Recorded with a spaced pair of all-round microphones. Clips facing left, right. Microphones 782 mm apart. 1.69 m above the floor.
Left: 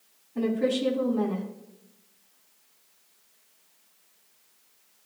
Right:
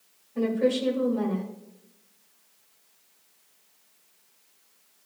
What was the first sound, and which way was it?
A woman speaking, 20° right (ahead or behind).